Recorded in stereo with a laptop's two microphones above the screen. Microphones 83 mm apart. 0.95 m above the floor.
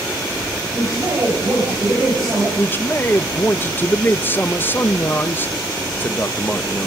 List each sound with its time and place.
0.7 s a man speaking: 35° right (ahead or behind), 6.5 m
2.6 s a man speaking: 25° left (ahead or behind), 1.1 m